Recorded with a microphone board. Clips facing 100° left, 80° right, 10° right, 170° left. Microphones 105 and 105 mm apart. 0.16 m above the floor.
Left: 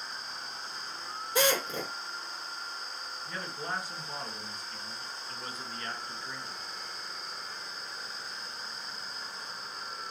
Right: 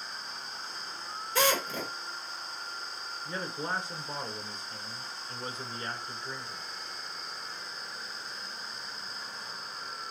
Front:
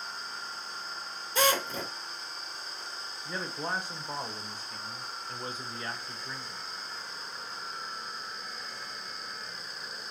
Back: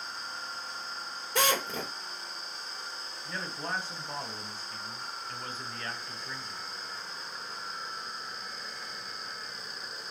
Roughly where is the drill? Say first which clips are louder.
Even, front 1 dB; behind.